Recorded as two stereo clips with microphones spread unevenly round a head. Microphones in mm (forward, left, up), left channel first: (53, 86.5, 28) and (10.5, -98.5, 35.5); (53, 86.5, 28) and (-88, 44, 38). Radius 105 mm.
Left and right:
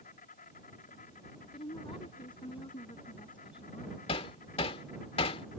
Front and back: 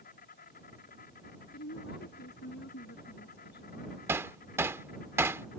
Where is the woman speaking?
10° left.